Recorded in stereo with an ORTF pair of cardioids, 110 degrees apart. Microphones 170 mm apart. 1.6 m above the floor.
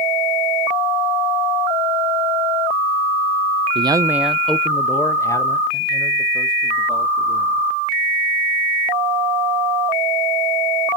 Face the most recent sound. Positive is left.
turn(degrees=30)